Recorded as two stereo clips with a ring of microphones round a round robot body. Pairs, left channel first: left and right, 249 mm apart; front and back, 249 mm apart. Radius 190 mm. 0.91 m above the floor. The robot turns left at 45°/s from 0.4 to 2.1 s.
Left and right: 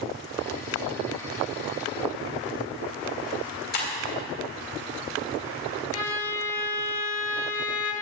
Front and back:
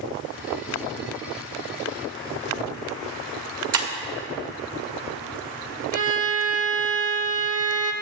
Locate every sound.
3.7 s breaking glass: 155° left, 1.8 m
5.9 s a violin: 145° left, 0.7 m